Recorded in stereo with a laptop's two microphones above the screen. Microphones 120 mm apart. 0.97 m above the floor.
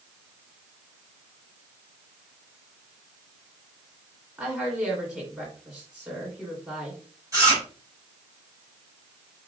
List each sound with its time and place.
4.4 s a woman speaking: 10° right (ahead or behind), 2.5 m
7.3 s chewing: 25° right (ahead or behind), 2 m